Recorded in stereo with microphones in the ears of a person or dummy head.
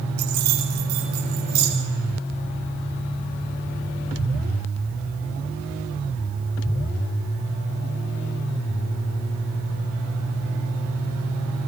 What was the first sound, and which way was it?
Keys jangling, 55° right (ahead or behind).